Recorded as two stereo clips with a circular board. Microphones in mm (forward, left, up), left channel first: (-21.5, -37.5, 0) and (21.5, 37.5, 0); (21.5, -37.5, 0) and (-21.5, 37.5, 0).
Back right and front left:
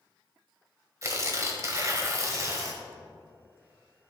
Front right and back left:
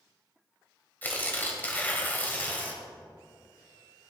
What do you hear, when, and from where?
1.0 s tearing paper: 10° left, 1.7 m